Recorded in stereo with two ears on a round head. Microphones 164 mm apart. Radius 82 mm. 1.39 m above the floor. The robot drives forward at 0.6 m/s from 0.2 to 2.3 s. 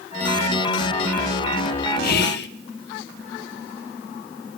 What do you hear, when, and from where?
2.0 s whispering: 55° left (ahead or behind), 1.0 m; by 2.5 s 60° left (ahead or behind), 0.9 m